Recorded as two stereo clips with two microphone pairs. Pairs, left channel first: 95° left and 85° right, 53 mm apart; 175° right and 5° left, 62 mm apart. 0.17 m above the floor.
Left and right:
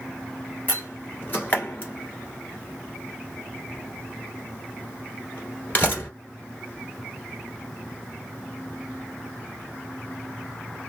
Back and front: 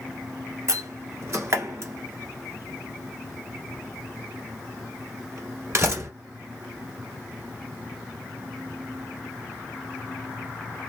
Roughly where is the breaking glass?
I don't hear breaking glass.